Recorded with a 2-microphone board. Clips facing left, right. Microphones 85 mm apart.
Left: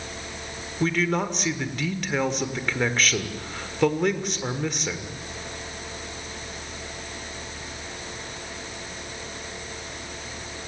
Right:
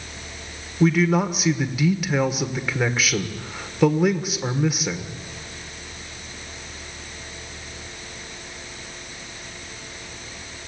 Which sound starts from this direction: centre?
A man speaking, at 0.8 s.